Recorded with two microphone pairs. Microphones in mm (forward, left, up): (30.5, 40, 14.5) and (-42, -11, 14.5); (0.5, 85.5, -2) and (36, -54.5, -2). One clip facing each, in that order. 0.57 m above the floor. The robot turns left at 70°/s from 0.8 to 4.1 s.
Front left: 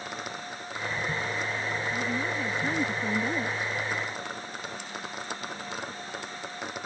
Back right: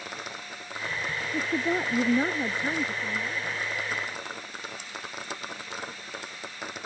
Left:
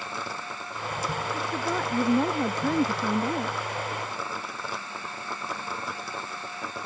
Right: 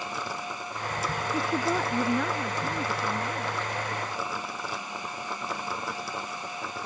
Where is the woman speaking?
130° right; by 3.5 s 75° left.